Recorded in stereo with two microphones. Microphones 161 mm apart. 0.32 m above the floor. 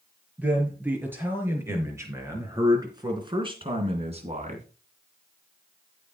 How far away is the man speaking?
About 5.5 m.